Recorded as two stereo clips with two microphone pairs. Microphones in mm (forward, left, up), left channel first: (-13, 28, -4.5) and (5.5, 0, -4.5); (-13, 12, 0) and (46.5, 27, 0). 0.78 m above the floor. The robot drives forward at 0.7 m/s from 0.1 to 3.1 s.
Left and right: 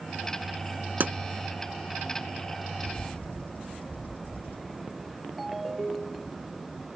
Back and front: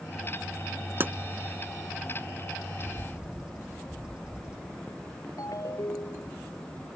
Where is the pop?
40° right.